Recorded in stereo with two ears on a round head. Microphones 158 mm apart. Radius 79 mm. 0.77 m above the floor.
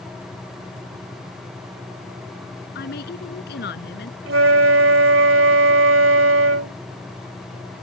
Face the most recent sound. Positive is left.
turn(degrees=-85)